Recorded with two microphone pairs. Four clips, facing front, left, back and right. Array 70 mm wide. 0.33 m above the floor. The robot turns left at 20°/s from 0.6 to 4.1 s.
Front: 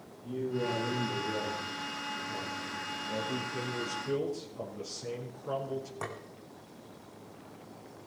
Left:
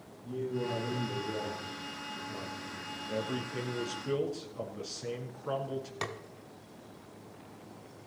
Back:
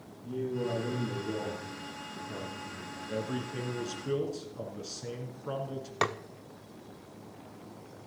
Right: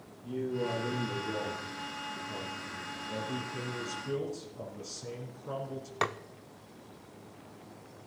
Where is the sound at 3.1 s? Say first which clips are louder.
Left 3 dB, back 1 dB; 135° left, 4.5 m; by 5.9 s 115° left, 4.5 m.